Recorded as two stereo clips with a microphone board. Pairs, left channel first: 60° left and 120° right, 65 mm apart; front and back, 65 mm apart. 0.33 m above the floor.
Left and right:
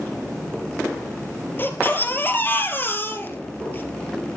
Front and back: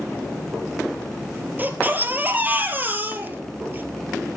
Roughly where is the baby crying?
Behind left.